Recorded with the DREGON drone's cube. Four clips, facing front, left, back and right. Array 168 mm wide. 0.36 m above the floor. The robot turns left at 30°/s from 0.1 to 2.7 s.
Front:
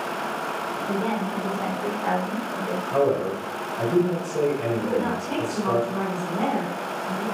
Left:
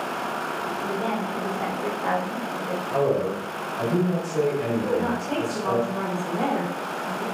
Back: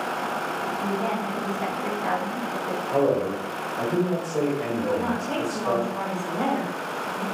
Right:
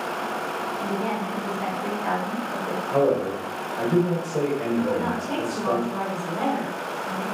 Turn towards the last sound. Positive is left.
turn(degrees=-35)